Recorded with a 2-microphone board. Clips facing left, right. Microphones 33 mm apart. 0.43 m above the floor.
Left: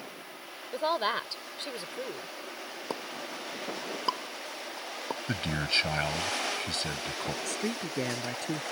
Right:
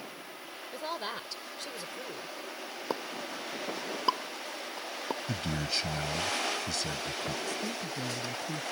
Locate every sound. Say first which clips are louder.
0.7 s a woman speaking: left 8 dB; 40° left (ahead or behind)
2.9 s a pop: right 2 dB; 5° right (ahead or behind)
5.3 s a man speaking: left 7 dB; 40° left (ahead or behind)
7.5 s a man speaking: left 2 dB; 75° left (ahead or behind)